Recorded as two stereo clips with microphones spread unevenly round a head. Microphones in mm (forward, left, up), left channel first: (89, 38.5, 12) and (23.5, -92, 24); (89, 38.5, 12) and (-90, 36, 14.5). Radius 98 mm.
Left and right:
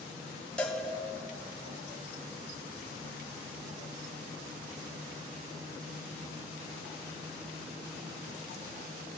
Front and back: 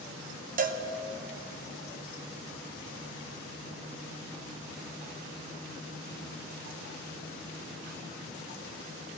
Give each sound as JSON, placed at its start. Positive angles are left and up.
{"t": 0.6, "sound": "a cowbell", "azimuth_deg": 145, "distance_m": 0.8}